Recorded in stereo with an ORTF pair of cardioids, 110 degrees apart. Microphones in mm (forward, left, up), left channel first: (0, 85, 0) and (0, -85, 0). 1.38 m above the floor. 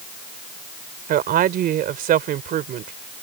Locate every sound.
1.1 s a woman speaking: 60° right